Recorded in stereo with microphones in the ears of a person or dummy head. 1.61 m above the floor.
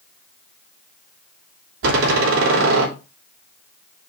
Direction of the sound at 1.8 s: 80° right.